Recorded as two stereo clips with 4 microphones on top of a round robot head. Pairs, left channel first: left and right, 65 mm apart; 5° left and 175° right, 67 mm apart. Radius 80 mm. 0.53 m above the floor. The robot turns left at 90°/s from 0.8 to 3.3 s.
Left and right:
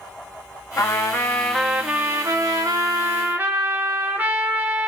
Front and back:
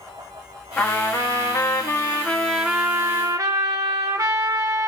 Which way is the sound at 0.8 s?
75° left.